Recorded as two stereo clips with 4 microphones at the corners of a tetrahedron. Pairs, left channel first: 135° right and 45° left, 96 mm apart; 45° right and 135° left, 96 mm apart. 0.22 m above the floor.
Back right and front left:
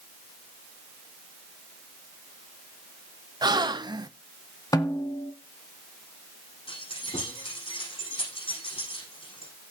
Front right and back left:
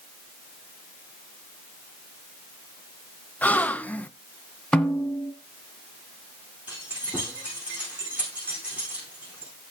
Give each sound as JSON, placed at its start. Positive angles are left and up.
{"t": 3.4, "sound": "a gasp", "azimuth_deg": 20, "distance_m": 0.5}
{"t": 4.7, "sound": "a snare drum", "azimuth_deg": -120, "distance_m": 1.2}
{"t": 6.7, "sound": "keys jangling", "azimuth_deg": -150, "distance_m": 9.0}